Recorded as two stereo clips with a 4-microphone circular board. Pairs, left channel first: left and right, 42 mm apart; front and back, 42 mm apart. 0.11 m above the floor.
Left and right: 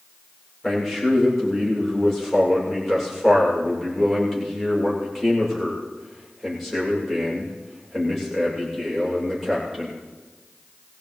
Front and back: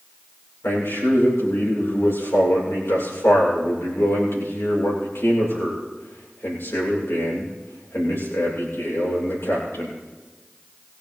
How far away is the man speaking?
About 9.5 m.